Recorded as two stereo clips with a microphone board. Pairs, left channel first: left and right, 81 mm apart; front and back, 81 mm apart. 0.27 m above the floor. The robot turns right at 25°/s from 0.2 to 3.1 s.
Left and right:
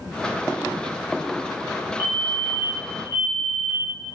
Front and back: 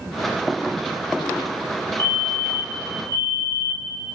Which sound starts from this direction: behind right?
A fire alarm, at 2.0 s.